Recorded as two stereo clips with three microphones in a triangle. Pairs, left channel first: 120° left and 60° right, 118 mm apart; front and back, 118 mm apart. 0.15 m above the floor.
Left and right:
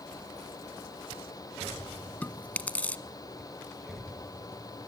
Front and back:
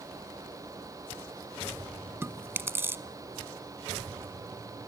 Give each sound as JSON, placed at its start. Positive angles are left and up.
{"t": 2.2, "sound": "chewing", "azimuth_deg": 170, "distance_m": 0.7}